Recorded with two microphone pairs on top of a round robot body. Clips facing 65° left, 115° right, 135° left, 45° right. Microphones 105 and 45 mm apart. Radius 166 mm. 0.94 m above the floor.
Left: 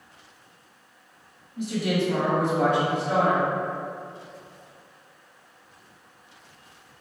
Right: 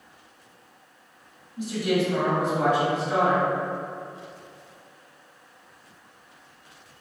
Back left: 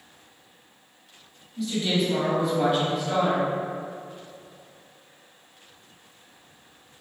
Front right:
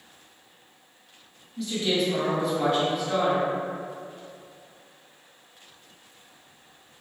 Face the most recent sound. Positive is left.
turn(degrees=55)